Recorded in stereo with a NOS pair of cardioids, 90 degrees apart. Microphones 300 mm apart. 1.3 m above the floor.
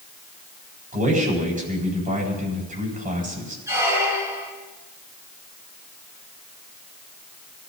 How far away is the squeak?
About 7 m.